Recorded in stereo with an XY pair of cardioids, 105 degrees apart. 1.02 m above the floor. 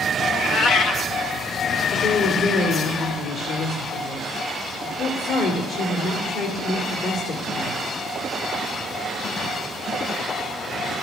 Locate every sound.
0.3 s a cat meowing: 65° left, 0.6 m
1.9 s a woman speaking: 70° left, 3 m